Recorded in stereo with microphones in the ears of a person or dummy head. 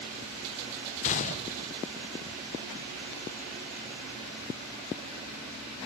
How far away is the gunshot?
About 1.2 m.